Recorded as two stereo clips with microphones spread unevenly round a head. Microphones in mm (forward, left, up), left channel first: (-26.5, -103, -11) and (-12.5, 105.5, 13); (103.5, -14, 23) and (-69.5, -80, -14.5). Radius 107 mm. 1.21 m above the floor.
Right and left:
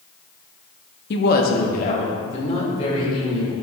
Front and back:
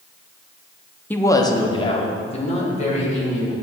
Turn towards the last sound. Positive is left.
turn(degrees=-30)